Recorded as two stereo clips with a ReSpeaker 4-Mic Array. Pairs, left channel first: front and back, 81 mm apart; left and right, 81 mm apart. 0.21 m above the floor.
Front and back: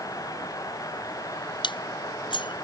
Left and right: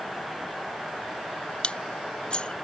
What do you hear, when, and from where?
1.6 s dishes clattering: 10° left